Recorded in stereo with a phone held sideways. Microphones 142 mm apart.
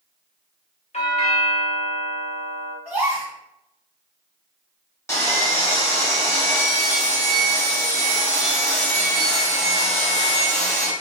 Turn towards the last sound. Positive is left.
turn(degrees=20)  # may be behind; listen again after turning